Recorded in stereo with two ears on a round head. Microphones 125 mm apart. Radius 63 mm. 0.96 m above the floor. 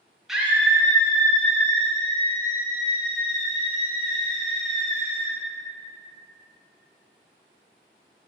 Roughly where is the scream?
Centre.